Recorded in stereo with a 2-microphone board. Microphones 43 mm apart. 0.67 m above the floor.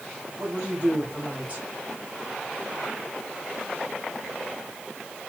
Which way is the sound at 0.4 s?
30° right (ahead or behind).